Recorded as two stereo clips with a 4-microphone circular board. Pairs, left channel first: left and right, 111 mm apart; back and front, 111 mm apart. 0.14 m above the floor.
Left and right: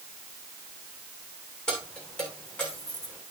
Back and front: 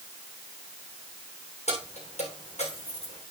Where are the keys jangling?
175° left, 7 m.